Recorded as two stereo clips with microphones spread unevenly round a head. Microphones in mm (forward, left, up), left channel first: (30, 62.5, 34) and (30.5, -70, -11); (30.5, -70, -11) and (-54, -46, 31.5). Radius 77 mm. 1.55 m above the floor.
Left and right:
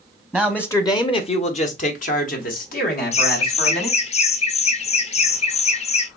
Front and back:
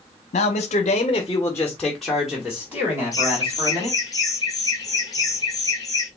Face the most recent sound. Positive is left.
turn(degrees=50)